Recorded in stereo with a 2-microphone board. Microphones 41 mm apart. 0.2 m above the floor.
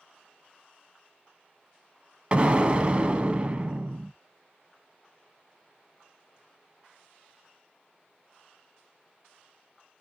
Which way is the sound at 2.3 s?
30° right (ahead or behind).